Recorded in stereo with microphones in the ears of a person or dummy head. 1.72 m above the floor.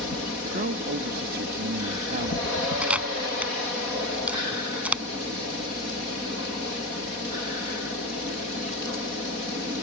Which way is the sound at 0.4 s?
55° right (ahead or behind).